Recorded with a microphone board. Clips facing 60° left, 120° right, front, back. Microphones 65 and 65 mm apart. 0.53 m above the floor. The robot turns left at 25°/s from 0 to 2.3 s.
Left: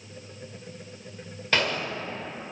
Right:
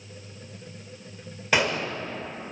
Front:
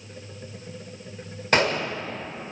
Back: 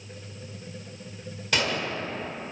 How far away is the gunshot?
About 0.9 m.